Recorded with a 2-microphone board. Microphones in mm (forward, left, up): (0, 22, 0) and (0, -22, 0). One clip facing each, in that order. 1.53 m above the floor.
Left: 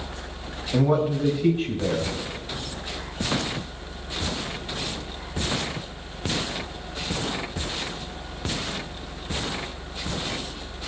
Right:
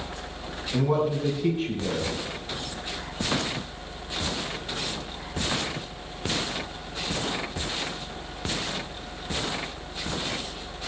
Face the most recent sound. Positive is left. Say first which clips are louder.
# left 3 dB
turn(degrees=60)  # may be behind; listen again after turning